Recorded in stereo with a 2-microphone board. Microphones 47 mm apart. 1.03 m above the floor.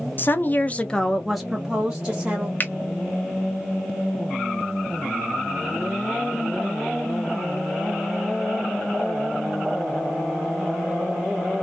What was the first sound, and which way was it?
A woman speaking, 45° left (ahead or behind).